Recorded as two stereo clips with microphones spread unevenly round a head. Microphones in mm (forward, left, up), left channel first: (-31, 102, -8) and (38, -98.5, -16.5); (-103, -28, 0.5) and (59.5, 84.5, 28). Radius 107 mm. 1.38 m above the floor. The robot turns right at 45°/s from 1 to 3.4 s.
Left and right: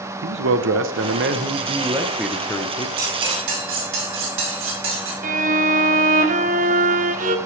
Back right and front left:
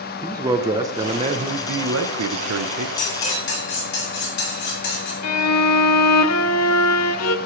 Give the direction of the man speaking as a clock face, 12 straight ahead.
1 o'clock.